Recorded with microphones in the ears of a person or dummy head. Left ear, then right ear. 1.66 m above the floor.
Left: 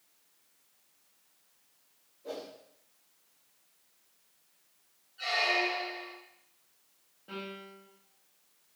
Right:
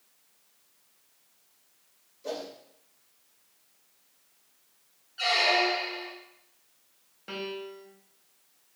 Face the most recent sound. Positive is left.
turn(degrees=-60)  # may be behind; listen again after turning